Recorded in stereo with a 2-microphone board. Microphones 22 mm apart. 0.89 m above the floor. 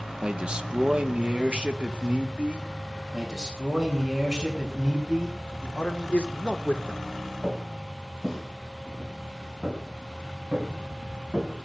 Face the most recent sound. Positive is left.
turn(degrees=-55)  # may be behind; listen again after turning